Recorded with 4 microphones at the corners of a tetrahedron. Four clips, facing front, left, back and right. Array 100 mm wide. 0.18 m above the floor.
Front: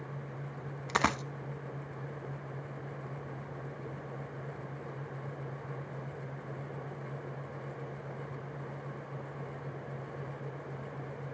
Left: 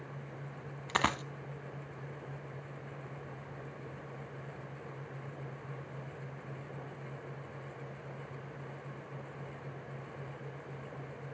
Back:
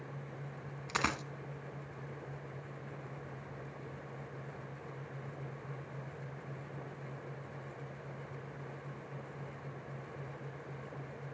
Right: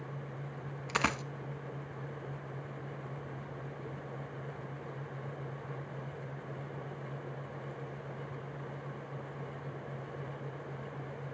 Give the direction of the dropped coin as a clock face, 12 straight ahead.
11 o'clock.